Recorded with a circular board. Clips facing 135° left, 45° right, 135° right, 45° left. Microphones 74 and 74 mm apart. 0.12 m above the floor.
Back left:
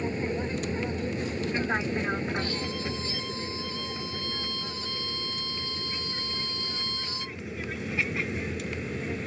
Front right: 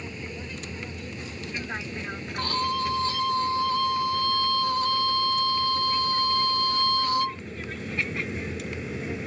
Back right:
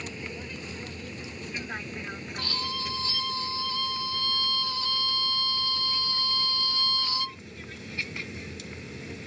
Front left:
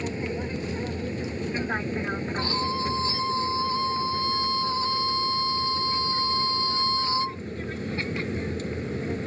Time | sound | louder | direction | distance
0.0 | an aircraft | back left 8 dB, front left 8 dB | 90° left | ?
2.4 | a violin | front right 5 dB, front left 6 dB | 15° right | ?